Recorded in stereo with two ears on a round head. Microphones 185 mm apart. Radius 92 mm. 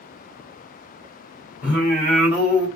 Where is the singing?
10° right (ahead or behind), 1.5 m.